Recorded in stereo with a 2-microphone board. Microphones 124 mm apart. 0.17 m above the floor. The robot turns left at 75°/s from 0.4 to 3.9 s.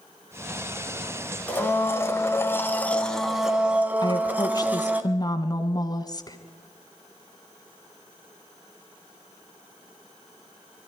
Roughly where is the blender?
Centre.